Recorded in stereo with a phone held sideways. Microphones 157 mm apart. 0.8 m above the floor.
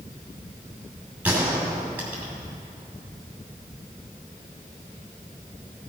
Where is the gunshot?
10° right (ahead or behind), 2.5 m.